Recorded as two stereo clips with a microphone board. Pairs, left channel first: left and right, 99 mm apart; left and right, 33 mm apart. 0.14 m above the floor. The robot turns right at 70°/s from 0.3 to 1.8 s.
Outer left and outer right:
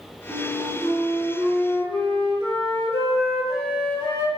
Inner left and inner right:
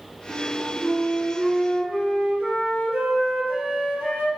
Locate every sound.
0.3 s a flute: 160° left, 2.0 m; by 4.3 s 95° right, 2.0 m